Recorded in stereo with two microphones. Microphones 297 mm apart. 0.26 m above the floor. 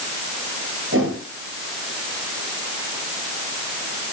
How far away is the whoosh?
About 3.5 m.